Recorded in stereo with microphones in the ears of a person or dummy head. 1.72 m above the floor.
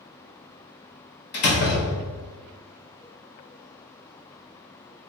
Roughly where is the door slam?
Left.